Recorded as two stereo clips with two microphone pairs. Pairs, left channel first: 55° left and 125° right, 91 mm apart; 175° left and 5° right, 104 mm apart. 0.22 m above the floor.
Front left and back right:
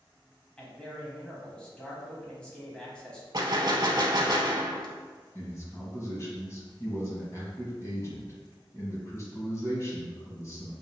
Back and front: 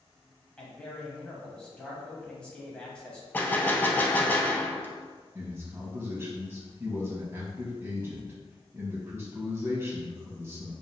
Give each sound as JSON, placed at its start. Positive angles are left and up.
{"t": 0.6, "sound": "a man speaking", "azimuth_deg": 115, "distance_m": 1.0}
{"t": 3.3, "sound": "a gunshot", "azimuth_deg": -120, "distance_m": 0.6}
{"t": 5.3, "sound": "a man speaking", "azimuth_deg": 40, "distance_m": 1.2}